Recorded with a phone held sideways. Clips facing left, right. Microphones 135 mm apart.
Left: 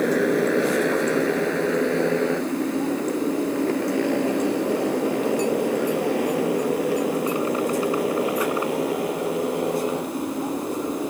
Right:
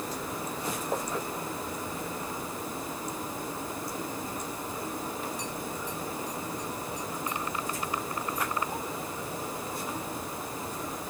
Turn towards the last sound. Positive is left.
turn(degrees=70)  # may be behind; listen again after turning